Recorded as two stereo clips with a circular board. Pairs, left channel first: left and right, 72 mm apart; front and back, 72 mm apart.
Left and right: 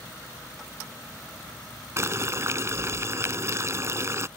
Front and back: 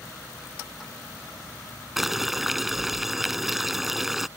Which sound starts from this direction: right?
Boiling, at 2.0 s.